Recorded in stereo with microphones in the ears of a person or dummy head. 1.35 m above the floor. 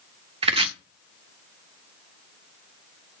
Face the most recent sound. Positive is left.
turn(degrees=-30)  # may be behind; listen again after turning